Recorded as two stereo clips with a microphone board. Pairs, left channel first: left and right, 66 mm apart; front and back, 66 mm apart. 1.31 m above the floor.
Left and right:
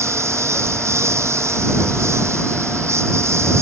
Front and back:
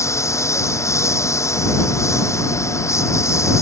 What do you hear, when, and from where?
0.0 s a lawn mower: 45° right